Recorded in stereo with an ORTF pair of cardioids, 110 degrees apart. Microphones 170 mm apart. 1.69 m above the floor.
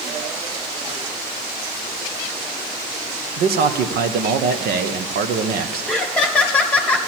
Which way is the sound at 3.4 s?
65° right.